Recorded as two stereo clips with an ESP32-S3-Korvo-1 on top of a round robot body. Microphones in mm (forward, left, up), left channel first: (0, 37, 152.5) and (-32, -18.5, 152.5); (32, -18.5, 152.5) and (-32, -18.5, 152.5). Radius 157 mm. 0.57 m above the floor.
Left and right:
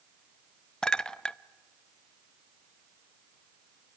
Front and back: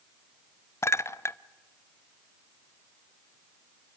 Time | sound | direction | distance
0.8 | a clink | 15° right | 0.8 m